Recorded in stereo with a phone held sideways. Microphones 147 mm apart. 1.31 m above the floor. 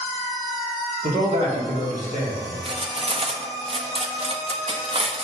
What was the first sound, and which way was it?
A man speaking, 70° right (ahead or behind).